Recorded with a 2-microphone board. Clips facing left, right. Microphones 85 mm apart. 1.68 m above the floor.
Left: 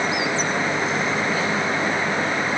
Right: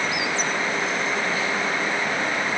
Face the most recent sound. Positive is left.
No sound to turn to.